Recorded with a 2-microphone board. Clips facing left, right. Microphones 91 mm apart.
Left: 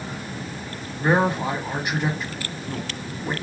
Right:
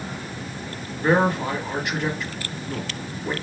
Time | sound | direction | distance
1.0 | a man speaking | 20° left (ahead or behind) | 1.1 m